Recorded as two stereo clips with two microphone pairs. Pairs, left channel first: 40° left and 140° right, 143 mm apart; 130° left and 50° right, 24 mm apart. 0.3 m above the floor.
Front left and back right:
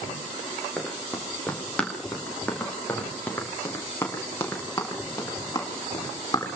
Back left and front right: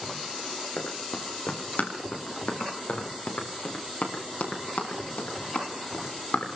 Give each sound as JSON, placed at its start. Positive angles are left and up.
{"t": 0.8, "sound": "running footsteps", "azimuth_deg": 125, "distance_m": 7.0}